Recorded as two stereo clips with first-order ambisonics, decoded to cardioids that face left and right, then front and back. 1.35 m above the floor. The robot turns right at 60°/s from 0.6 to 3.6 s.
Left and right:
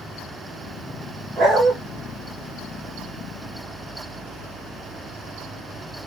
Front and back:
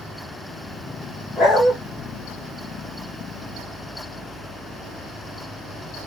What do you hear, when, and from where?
1.4 s a dog barking: 45° right, 1.4 m; by 1.7 s 25° right, 1.4 m